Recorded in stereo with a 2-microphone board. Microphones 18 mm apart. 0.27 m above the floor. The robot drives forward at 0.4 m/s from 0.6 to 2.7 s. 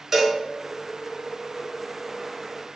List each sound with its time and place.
0.1 s a cowbell: 15° right (ahead or behind), 1.3 m